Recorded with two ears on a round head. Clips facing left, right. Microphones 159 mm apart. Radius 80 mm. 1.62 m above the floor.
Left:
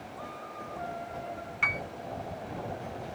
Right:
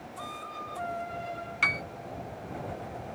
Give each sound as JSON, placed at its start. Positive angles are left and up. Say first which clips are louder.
{"t": 1.6, "sound": "a piano", "louder": "left 1 dB", "side_deg": -45}